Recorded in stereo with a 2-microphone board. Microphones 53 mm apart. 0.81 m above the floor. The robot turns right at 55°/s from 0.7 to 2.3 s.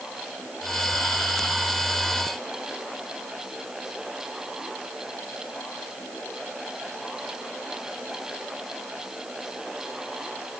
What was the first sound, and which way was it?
Only background noise.